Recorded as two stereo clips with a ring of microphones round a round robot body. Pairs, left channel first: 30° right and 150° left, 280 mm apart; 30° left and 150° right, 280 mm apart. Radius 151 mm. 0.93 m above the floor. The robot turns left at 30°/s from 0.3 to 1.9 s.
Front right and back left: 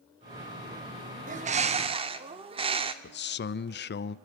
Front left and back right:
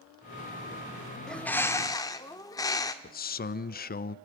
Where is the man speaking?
5° right, 0.6 m.